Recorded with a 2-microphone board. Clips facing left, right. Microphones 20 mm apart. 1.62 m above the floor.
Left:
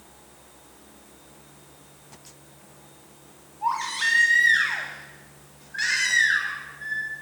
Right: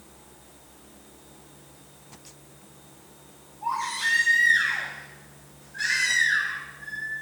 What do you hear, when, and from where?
3.6 s a baby crying: 40° left (ahead or behind), 3 m